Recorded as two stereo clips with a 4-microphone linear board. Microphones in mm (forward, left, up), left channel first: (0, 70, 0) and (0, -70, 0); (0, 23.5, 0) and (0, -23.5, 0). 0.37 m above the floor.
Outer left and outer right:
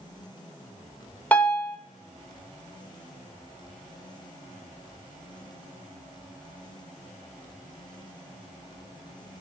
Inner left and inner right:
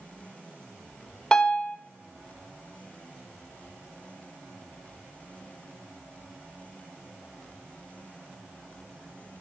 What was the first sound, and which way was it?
A piano, 10° left (ahead or behind).